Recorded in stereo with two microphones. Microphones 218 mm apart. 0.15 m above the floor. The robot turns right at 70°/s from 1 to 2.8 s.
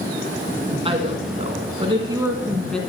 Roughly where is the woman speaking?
Right.